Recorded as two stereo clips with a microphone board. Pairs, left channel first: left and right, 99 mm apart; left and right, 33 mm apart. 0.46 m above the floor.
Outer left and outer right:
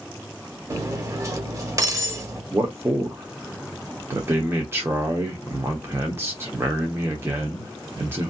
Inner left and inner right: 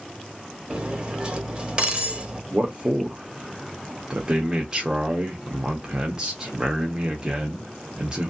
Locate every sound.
0.7 s cutlery clinking: 30° right (ahead or behind), 0.8 m
2.5 s a man speaking: 25° right (ahead or behind), 0.9 m